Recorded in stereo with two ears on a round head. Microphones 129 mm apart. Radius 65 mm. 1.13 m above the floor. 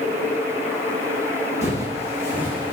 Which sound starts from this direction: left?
Footsteps, at 1.6 s.